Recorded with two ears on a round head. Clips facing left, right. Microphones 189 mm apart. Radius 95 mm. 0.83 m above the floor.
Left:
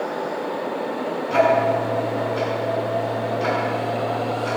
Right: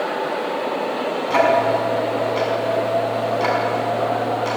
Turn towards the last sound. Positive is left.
turn(degrees=-70)  # may be behind; listen again after turning